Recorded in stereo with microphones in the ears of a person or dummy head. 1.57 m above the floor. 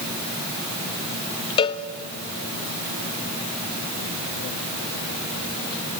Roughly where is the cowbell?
Left.